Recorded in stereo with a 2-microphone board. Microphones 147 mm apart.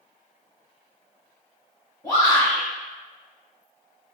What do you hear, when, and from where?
2.0 s a shout: 20° left (ahead or behind), 1.0 m